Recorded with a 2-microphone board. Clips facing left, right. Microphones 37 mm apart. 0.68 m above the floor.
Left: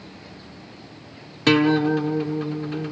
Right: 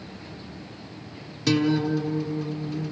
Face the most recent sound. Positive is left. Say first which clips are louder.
# left 5 dB
turn(degrees=40)  # may be behind; listen again after turning